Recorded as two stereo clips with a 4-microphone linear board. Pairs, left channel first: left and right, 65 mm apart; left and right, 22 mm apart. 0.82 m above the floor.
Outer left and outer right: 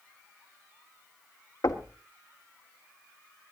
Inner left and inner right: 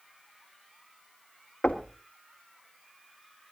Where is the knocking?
70° left (ahead or behind), 1.5 m.